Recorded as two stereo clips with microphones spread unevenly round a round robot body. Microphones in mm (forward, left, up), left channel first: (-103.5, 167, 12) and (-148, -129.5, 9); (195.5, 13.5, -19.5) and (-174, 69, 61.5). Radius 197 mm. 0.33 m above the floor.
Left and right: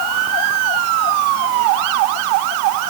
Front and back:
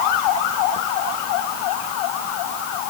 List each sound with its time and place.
Only background noise.